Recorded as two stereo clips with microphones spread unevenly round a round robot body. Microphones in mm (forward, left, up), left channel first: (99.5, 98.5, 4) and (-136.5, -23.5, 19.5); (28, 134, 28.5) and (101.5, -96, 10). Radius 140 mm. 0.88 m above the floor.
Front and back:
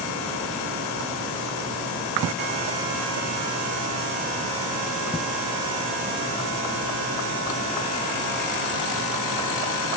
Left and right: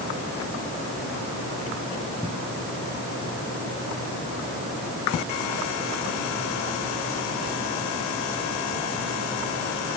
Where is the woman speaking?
I don't hear a woman speaking.